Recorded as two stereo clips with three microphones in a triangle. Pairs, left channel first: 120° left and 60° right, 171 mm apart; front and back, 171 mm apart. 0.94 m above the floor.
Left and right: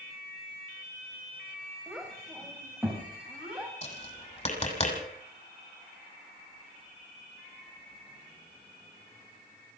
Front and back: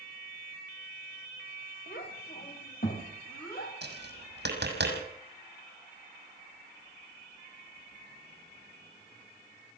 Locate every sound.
1.9 s a child speaking: 30° left, 3.5 m; by 3.8 s 25° left, 4.5 m
3.8 s tapping: 170° left, 6 m